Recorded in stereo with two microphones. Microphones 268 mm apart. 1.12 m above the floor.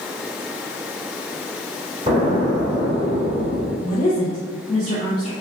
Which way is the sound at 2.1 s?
20° right (ahead or behind).